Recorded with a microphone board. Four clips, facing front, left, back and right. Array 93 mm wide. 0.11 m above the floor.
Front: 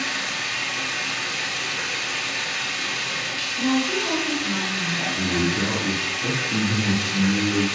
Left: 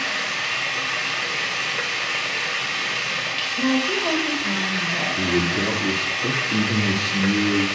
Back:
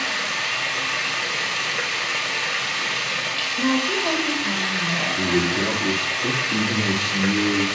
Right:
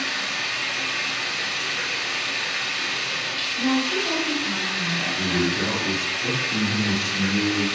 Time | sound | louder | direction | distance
0.0 | running water | left 2 dB, back 2 dB | 120° left | 2.5 m
3.6 | a woman speaking | left 1 dB, even | 115° left | 3.5 m
5.2 | a man speaking | left 2 dB, back 2 dB | 95° left | 2 m